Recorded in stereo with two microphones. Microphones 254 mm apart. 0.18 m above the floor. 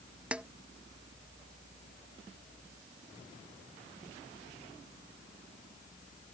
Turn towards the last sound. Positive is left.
turn(degrees=-5)  # may be behind; listen again after turning